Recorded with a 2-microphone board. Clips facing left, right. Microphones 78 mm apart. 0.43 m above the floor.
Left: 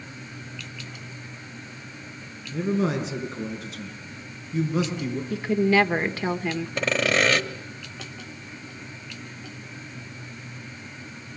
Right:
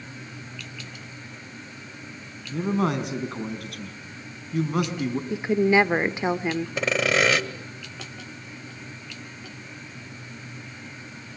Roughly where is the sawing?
Centre.